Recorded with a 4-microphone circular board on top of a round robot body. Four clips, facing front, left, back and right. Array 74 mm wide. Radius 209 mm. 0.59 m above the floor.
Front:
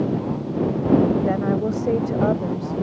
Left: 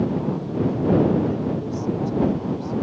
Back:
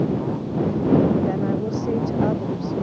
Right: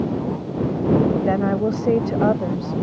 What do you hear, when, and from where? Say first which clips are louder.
1.2 s a woman speaking: right 5 dB, front 2 dB; 70° right